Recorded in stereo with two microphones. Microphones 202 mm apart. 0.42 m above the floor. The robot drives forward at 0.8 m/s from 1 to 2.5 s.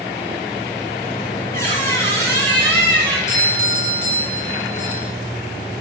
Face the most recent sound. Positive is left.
turn(degrees=35)  # may be behind; listen again after turning